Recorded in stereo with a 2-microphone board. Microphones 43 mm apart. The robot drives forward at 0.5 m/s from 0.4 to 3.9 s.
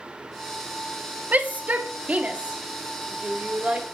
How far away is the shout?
About 1.5 m.